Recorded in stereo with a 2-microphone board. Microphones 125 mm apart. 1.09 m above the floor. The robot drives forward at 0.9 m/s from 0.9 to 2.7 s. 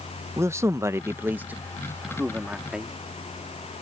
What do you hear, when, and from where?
0.4 s a man speaking: 20° right (ahead or behind); by 2.9 s 5° right (ahead or behind)